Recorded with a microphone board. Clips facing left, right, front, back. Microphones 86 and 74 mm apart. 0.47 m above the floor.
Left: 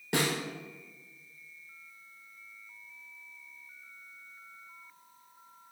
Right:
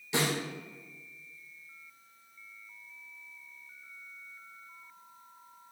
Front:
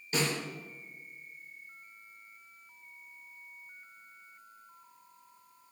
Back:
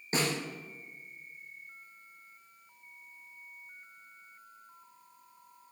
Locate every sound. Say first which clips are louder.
0.1 s a snare drum: even, even; 125° left, 2 m